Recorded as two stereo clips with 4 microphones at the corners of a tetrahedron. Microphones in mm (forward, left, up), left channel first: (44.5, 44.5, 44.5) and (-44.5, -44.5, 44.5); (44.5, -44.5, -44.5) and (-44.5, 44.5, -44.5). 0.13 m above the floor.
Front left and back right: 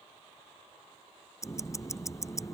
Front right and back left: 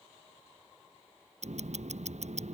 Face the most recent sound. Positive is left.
turn(degrees=110)